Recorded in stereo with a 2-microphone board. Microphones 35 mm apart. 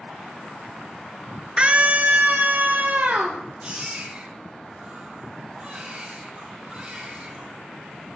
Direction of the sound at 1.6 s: 30° right (ahead or behind).